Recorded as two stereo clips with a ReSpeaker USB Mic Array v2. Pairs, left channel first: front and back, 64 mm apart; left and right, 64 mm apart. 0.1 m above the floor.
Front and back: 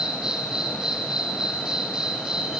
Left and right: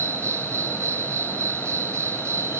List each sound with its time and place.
0.0 s an insect: 105° right, 2.5 m